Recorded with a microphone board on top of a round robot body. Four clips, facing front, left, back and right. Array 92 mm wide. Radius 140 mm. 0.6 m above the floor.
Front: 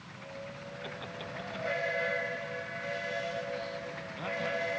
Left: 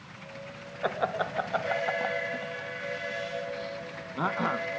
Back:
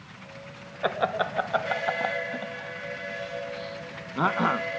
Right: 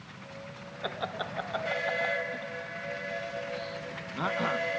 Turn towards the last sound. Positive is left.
turn(degrees=165)